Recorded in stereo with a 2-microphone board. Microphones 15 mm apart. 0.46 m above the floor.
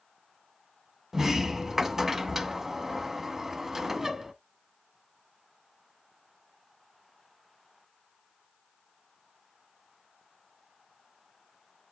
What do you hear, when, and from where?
1.1 s a sliding door: 30° right (ahead or behind), 0.8 m